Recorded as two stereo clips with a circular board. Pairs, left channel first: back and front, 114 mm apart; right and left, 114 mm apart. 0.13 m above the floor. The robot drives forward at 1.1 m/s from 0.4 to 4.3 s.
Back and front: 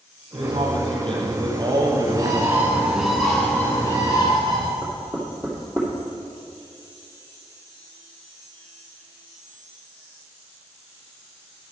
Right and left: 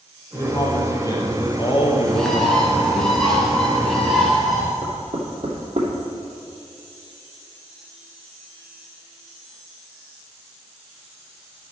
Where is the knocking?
105° left, 3 m.